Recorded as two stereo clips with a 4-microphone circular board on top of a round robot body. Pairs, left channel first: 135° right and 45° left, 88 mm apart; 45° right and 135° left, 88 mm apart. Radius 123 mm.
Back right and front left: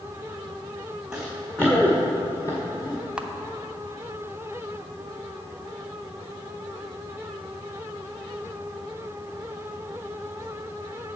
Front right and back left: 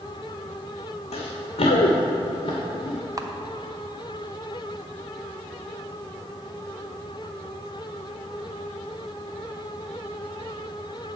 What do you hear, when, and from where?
1.1 s running footsteps: 40° right, 1.6 m; by 3.0 s 85° right, 2.5 m
3.2 s a camera shutter: 120° left, 1.0 m